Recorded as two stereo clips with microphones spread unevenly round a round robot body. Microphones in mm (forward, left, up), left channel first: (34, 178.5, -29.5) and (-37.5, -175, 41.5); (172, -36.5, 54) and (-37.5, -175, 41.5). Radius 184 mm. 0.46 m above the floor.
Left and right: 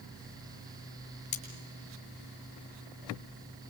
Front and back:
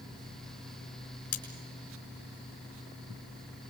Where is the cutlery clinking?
10° left, 5 m.